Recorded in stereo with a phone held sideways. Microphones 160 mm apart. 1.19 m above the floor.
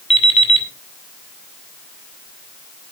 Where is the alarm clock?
40° left (ahead or behind), 2 m.